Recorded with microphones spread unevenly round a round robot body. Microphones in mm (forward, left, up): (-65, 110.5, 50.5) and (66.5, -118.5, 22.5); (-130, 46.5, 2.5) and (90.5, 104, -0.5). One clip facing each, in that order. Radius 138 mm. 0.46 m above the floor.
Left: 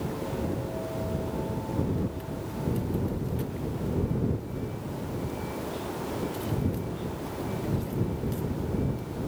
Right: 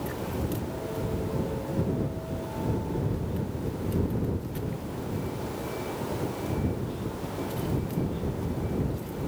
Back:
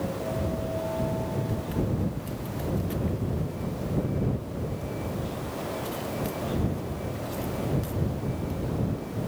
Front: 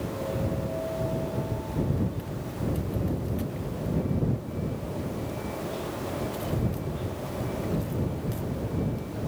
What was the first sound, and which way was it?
Only background noise.